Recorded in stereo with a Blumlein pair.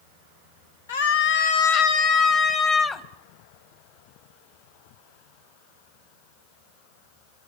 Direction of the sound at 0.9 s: 60° left.